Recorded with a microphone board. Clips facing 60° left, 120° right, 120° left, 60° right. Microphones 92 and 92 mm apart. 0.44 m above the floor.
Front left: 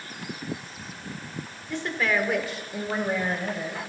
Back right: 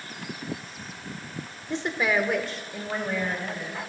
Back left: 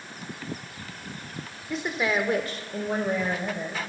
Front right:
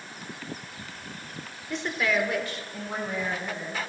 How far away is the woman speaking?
About 1.1 m.